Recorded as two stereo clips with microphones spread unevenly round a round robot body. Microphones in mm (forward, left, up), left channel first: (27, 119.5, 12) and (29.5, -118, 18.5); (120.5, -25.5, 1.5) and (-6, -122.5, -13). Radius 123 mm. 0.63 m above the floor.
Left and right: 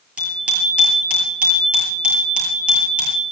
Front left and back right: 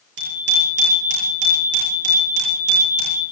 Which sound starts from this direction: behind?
A bicycle bell, at 0.2 s.